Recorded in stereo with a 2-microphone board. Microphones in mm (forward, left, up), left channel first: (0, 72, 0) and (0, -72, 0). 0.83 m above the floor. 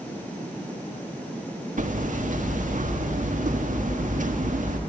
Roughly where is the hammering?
Right.